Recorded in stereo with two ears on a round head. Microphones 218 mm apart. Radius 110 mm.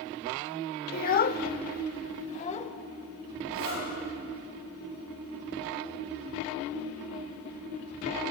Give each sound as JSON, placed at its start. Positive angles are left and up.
{"t": 0.9, "sound": "a child speaking", "side_deg": 35, "distance_m": 1.0}
{"t": 3.5, "sound": "a zipper", "side_deg": -55, "distance_m": 9.5}